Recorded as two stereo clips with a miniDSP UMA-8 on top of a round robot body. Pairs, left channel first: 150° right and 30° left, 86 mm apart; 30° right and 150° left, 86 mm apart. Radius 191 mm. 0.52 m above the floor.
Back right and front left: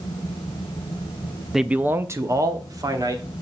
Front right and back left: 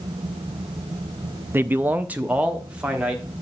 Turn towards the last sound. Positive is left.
turn(degrees=70)